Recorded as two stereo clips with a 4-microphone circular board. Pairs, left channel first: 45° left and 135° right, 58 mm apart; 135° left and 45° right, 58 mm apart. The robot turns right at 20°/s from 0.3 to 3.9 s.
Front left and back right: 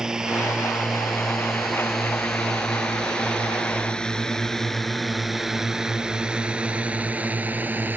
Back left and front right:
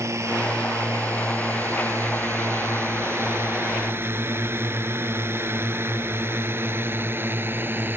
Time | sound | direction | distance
0.0 | a drone | 55° right | ?